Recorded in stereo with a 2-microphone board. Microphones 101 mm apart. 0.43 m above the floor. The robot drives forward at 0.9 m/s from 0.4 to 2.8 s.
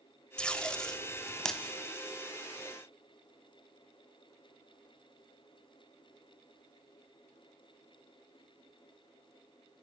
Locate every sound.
0.4 s tape being pulled: 10° left (ahead or behind), 1.1 m; by 1.6 s 5° left (ahead or behind), 2 m